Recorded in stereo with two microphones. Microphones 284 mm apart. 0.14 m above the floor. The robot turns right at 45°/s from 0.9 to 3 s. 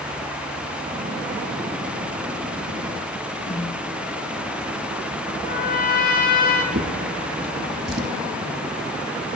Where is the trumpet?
30° left (ahead or behind), 1.1 m.